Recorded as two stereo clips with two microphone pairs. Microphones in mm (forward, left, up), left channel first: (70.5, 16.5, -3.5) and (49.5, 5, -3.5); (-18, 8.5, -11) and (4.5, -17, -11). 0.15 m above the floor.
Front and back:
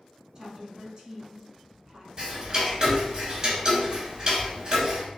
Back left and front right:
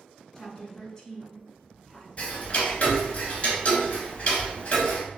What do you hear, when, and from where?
0.3 s a woman speaking: 175° right, 1.3 m
2.2 s ticking: 165° left, 1.4 m